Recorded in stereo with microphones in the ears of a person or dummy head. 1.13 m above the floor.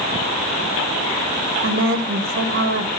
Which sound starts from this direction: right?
A woman speaking, at 1.6 s.